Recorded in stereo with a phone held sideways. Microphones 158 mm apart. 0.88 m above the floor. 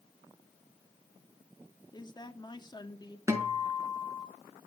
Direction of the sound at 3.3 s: 20° right (ahead or behind).